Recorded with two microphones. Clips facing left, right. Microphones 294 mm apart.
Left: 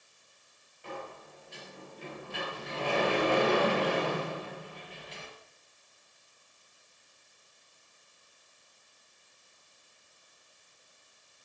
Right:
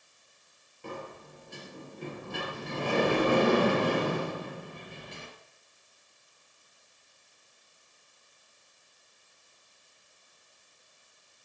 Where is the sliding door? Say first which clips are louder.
Right 2 dB; 50° right (ahead or behind), 3 m.